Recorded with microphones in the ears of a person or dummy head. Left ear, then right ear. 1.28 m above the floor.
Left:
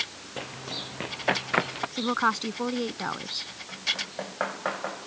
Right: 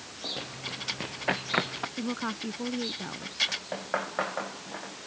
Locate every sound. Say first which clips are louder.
0.4 s running footsteps: left 2 dB; 20° left (ahead or behind); by 1.9 s 15° left (ahead or behind)
2.0 s a woman speaking: left 13 dB; 55° left (ahead or behind)